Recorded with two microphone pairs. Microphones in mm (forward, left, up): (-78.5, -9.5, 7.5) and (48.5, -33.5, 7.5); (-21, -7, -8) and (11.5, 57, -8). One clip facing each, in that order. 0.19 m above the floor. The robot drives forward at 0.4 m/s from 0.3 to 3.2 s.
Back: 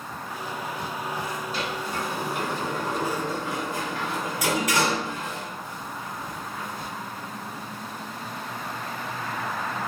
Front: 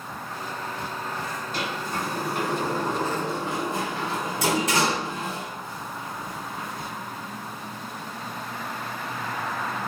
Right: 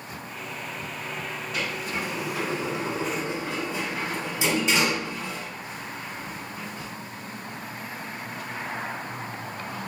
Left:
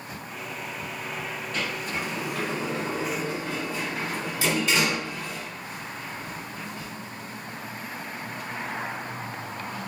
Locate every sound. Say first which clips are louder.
1.5 s a sliding door: front 2 dB, right 1 dB; 35° right, 1.8 m; by 6.9 s 60° right, 1.4 m